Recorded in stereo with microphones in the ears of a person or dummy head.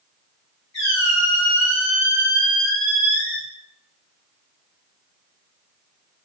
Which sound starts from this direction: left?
A squeak, at 0.7 s.